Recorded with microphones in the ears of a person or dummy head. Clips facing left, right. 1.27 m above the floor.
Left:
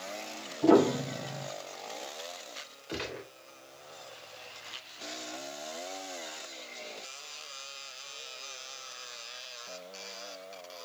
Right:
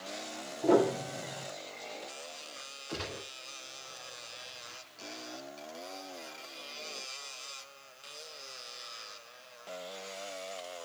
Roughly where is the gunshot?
Left.